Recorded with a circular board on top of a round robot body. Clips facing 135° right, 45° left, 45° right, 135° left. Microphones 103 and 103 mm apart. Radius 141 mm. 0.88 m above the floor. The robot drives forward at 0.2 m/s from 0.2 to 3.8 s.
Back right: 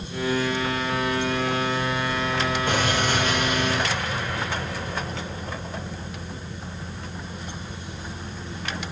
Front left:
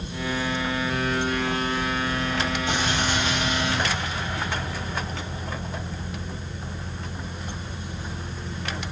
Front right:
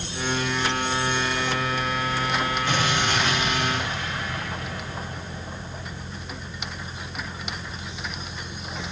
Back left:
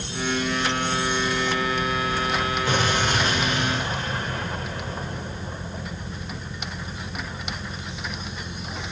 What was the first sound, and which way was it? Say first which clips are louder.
An explosion: back right 2 dB, back left 3 dB; 175° right.